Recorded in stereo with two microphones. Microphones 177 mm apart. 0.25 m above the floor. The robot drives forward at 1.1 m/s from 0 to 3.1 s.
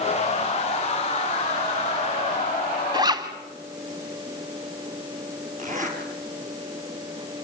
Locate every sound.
2.9 s a zipper: 25° right (ahead or behind), 2 m; by 3.3 s 20° right (ahead or behind), 2 m
5.6 s a zipper: 50° right (ahead or behind), 5.5 m